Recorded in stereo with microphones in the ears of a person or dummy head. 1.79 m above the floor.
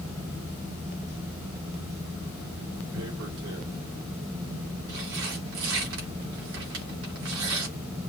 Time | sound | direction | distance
2.9 | tearing paper | 65° right (ahead or behind) | 3 m